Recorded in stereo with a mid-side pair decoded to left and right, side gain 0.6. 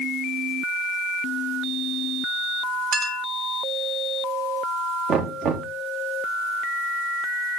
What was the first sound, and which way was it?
A clink, 60° right.